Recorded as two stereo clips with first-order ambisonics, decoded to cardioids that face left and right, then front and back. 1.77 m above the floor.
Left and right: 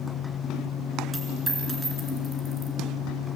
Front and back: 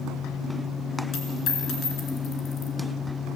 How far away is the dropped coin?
About 2 m.